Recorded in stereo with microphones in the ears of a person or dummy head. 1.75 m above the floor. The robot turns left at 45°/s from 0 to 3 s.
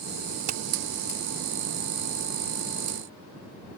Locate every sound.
0.5 s hammering: 50° right (ahead or behind); by 0.6 s 45° right (ahead or behind)